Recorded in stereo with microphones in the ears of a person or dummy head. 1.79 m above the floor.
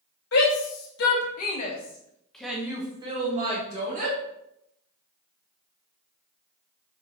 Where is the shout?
70° left (ahead or behind), 2.5 m; by 4.2 s 50° right (ahead or behind), 2.5 m.